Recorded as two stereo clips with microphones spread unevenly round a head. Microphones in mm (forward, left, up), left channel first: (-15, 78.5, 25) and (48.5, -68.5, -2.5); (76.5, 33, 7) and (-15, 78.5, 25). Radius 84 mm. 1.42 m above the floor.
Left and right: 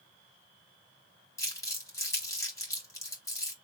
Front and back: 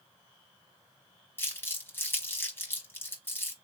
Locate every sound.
1.4 s crumpling: 45° left, 2.5 m